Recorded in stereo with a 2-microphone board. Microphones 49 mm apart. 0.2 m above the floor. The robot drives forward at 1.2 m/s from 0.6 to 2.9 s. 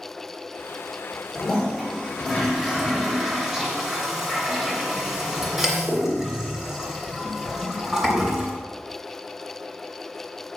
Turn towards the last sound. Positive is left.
turn(degrees=-5)  # may be behind; listen again after turning